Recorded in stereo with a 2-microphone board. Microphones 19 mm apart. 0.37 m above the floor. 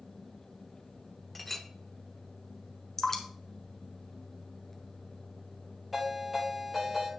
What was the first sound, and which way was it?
A clink, 10° left (ahead or behind).